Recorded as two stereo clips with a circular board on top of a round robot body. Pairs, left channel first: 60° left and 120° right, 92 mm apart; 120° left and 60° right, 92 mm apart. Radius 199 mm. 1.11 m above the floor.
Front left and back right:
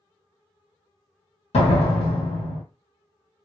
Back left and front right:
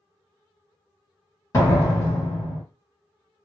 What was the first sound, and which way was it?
A door slam, 60° left.